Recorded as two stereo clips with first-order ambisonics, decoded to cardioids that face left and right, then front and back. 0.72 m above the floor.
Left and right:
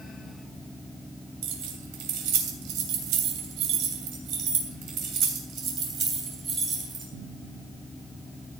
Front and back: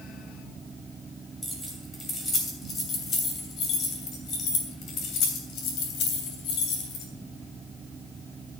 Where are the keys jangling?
80° right, 3 m; by 7.0 s 25° right, 3.5 m.